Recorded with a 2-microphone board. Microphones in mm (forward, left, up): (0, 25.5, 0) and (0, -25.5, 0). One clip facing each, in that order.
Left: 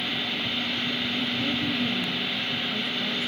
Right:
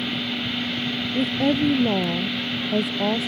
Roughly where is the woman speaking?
Right.